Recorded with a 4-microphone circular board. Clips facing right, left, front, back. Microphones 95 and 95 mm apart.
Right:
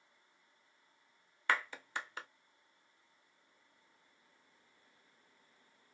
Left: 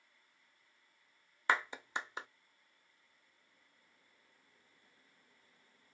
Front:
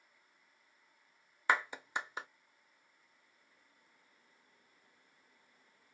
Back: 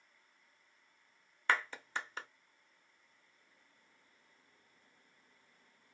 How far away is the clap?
About 0.6 m.